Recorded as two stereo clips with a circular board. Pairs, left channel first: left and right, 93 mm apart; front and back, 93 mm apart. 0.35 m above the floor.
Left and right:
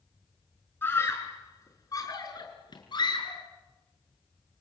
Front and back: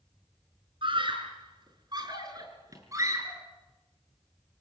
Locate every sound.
0.8 s a scream: 155° left, 5.5 m; by 3.4 s 120° left, 6.5 m